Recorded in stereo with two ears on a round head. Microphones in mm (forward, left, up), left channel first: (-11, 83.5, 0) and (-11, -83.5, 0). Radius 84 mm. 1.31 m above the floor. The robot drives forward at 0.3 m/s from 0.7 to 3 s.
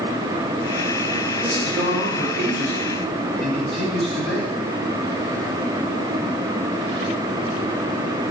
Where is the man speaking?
5° left (ahead or behind), 2.5 m.